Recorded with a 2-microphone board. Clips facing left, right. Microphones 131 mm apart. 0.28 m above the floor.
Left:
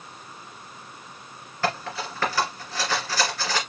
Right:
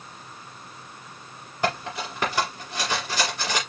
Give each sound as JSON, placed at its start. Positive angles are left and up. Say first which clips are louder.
{"t": 1.6, "sound": "cutlery clinking", "louder": "right 1 dB", "side_deg": -15, "distance_m": 2.5}